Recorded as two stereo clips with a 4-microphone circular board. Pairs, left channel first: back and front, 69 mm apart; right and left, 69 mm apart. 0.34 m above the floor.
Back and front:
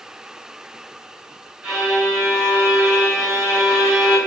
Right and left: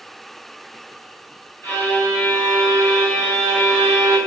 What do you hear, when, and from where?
1.6 s a violin: 70° right, 1.9 m